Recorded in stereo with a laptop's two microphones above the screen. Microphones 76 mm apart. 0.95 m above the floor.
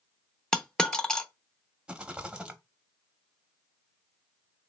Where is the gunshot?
No gunshot in this recording.